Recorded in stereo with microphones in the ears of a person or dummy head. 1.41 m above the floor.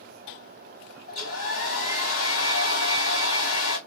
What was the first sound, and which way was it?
A hair dryer, 85° left.